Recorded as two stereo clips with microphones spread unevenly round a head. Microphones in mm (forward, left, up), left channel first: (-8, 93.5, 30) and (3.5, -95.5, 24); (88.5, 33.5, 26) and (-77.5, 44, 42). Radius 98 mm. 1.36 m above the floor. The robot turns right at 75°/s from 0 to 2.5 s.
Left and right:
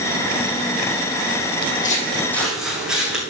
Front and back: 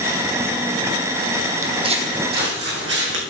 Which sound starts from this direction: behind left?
Footsteps, at 1.6 s.